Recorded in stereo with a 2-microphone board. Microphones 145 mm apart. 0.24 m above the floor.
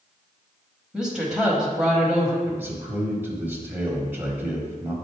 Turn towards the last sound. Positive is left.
turn(degrees=-15)  # may be behind; listen again after turning